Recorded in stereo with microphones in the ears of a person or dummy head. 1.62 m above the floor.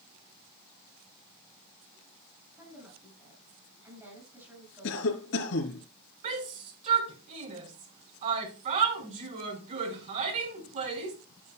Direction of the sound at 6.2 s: 45° right (ahead or behind).